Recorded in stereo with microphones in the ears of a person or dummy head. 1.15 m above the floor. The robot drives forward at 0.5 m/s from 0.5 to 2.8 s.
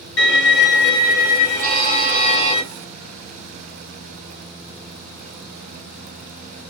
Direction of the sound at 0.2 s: 55° left (ahead or behind).